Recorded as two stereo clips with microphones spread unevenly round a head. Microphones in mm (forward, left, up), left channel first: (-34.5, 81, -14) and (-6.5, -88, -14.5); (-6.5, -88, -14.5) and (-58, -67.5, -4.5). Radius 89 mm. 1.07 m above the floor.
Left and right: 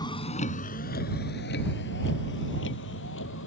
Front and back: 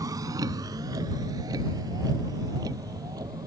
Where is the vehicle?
165° left; by 3.5 s 115° left.